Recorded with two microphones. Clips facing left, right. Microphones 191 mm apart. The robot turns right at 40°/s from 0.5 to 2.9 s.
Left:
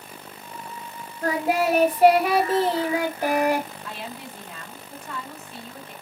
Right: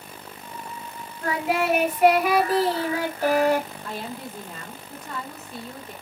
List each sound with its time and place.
1.2 s singing: 90° left, 0.9 m; by 3.7 s 155° left, 0.9 m
3.8 s a woman speaking: 40° right (ahead or behind), 1.5 m